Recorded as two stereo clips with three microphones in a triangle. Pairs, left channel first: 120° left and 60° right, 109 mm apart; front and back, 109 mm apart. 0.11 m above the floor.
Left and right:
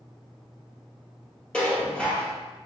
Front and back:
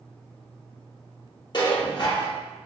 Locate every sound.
1.5 s dishes clattering: 40° left, 2.0 m